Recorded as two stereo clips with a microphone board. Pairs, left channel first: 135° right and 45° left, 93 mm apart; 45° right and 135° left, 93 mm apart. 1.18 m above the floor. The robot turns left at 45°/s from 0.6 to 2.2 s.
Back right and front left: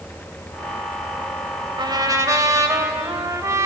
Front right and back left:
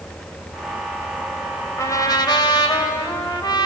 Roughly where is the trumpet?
Ahead.